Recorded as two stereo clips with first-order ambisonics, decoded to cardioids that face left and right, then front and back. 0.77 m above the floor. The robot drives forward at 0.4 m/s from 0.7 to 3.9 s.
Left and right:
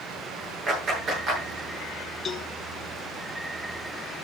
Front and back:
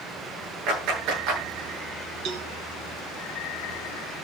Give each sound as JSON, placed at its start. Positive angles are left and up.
{"t": 0.7, "sound": "a clap", "azimuth_deg": -150, "distance_m": 9.5}
{"t": 2.2, "sound": "a cowbell", "azimuth_deg": 160, "distance_m": 1.2}